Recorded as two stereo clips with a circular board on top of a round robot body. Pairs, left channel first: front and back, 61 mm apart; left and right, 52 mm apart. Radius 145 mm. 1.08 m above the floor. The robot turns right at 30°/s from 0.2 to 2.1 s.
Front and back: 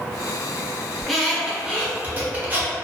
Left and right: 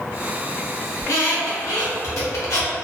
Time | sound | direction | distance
1.0 | a squeak | 85° left | 0.7 m